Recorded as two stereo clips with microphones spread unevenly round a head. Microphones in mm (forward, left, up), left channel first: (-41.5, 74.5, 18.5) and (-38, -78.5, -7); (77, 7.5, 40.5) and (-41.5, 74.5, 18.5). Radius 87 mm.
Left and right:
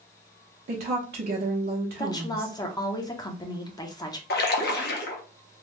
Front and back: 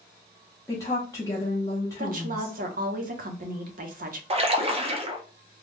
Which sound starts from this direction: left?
A splash, at 4.3 s.